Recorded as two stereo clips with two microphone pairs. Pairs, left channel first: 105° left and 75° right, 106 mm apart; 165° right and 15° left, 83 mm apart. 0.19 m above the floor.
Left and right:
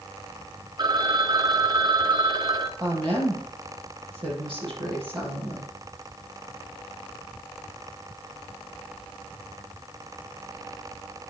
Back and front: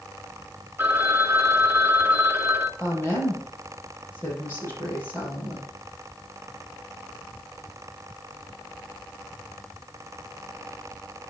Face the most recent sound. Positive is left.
turn(degrees=-105)